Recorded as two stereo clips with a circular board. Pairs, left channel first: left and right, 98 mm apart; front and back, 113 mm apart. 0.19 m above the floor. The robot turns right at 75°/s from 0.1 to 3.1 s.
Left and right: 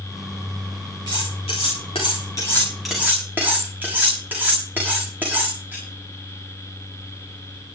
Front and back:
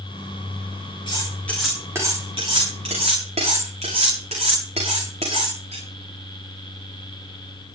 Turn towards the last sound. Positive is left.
turn(degrees=-160)